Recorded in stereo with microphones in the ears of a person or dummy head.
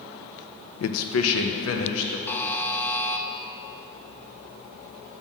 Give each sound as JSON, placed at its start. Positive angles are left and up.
{"t": 0.8, "sound": "a man speaking", "side_deg": 80, "distance_m": 0.5}
{"t": 2.3, "sound": "a buzzer", "side_deg": 15, "distance_m": 0.7}